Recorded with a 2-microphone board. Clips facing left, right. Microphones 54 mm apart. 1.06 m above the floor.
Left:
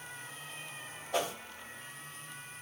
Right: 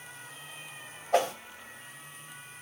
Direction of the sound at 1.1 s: 50° right (ahead or behind).